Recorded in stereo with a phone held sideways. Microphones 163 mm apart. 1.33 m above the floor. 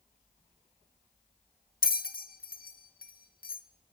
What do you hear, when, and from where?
1.8 s a bell: 60° left (ahead or behind), 0.5 m